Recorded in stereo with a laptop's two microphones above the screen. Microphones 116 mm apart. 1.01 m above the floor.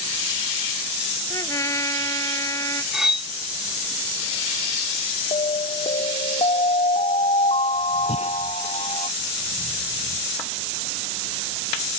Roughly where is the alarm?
Left.